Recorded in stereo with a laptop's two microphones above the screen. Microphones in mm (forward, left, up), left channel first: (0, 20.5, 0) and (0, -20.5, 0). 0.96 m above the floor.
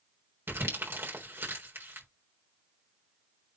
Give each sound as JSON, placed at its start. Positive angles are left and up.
{"t": 0.5, "sound": "crumpling", "side_deg": -80, "distance_m": 4.0}